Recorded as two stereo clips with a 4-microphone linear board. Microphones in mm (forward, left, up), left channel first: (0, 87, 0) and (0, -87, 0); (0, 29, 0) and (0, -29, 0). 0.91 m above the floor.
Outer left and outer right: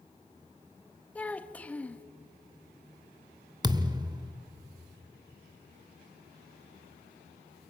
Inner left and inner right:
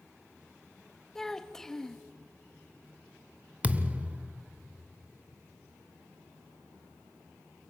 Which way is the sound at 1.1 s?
10° left (ahead or behind).